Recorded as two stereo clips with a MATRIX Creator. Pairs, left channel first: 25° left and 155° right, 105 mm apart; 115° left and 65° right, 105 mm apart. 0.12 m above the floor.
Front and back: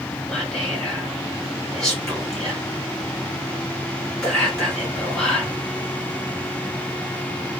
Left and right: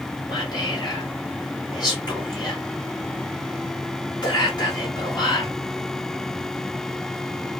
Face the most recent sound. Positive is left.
turn(degrees=110)